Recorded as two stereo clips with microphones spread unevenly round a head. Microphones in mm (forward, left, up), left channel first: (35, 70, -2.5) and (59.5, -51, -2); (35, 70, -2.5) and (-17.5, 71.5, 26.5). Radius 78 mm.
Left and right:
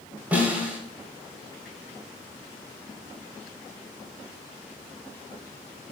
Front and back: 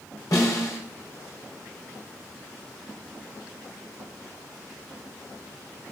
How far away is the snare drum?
About 5 m.